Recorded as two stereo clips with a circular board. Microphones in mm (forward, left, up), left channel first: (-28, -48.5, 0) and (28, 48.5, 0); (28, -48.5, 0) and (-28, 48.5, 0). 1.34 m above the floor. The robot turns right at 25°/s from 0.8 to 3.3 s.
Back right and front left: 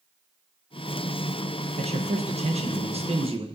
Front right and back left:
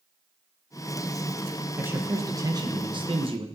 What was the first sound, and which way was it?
A man speaking, 50° left.